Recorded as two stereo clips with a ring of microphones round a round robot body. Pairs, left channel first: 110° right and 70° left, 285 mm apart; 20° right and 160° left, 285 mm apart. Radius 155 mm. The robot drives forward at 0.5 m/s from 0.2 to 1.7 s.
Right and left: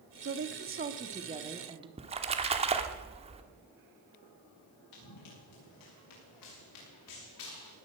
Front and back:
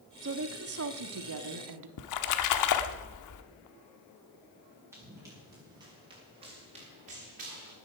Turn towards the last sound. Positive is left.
turn(degrees=-145)